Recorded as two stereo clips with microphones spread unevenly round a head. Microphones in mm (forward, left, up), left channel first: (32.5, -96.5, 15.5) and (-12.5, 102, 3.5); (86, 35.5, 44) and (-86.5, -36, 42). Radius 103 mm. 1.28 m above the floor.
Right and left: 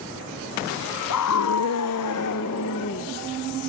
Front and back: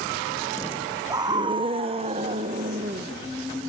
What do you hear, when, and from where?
1.1 s a scream: 85° right, 0.7 m; by 3.1 s 100° right, 1.6 m